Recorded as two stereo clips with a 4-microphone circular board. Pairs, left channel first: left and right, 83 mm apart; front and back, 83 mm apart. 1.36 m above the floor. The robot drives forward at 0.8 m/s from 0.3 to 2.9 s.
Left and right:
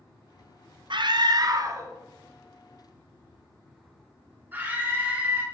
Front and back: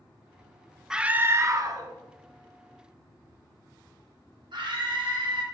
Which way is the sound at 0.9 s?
95° right.